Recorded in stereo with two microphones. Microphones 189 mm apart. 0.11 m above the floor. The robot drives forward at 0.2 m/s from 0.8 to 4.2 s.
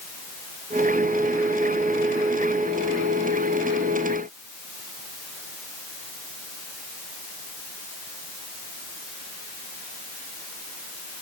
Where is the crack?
I don't hear a crack.